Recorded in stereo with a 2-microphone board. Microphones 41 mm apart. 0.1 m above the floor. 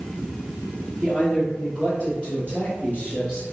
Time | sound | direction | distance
1.0 | a man speaking | 25° left (ahead or behind) | 1.7 m